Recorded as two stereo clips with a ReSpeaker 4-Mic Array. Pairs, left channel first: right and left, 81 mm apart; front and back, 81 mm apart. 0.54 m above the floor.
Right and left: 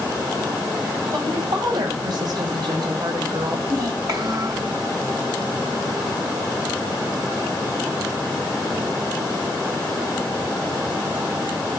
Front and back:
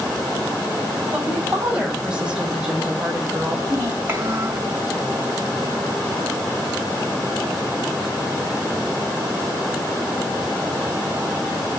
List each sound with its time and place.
1.1 s a woman speaking: 105° left, 3.5 m; by 3.6 s 100° left, 1.8 m
3.7 s a child speaking: 120° left, 1.8 m